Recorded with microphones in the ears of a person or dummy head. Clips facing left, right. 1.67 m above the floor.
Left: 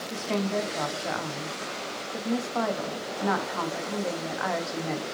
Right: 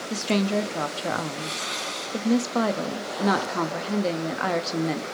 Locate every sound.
0.1 s a woman speaking: 50° right (ahead or behind), 0.6 m